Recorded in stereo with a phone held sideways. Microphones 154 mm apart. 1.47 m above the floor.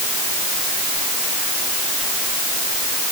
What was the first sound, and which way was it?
Only background noise.